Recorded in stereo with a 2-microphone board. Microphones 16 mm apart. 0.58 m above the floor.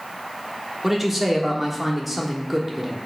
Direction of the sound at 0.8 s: 15° right (ahead or behind).